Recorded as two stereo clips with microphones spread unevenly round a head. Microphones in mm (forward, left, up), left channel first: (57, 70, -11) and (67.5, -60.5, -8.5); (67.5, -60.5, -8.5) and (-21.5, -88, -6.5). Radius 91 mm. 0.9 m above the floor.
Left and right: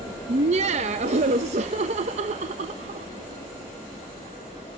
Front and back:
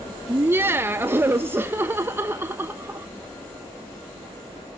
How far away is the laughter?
About 0.6 m.